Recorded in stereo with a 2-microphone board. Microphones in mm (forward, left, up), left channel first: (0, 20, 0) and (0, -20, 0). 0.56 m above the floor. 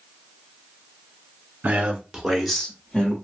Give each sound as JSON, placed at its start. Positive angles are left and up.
{"t": 1.6, "sound": "a man speaking", "side_deg": -40, "distance_m": 1.0}